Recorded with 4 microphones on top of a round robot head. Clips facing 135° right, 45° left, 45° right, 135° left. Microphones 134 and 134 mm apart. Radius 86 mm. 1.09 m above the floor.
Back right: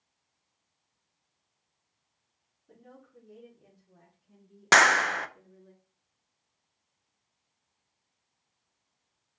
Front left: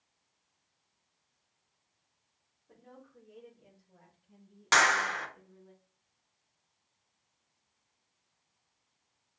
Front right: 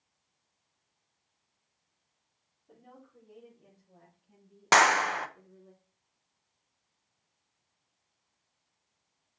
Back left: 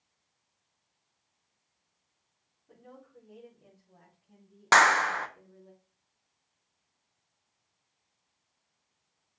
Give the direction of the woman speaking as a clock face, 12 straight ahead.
4 o'clock.